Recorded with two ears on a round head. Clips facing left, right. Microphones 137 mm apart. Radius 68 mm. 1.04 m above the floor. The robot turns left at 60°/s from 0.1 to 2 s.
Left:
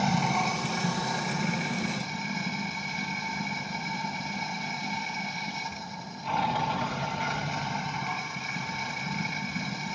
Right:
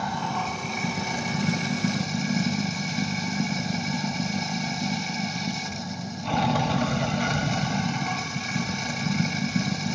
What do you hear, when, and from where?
0.0 s running water: 25° left, 1.2 m; by 10.0 s 85° right, 1.2 m